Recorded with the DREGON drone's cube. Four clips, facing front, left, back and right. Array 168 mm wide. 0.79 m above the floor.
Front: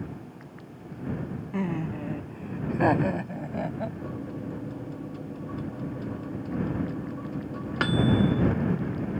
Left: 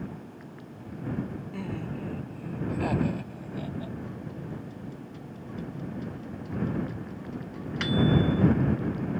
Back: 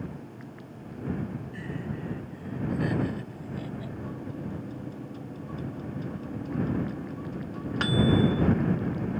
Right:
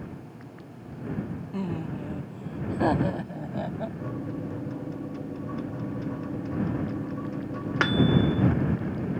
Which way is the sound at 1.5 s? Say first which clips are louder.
Right 5 dB, front 6 dB; 15° right.